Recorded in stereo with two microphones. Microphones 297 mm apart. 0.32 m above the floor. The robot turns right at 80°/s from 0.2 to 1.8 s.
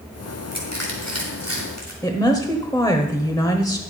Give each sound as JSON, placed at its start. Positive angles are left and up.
{"t": 0.5, "sound": "crushing", "side_deg": -40, "distance_m": 3.5}
{"t": 2.0, "sound": "a woman speaking", "side_deg": 10, "distance_m": 1.1}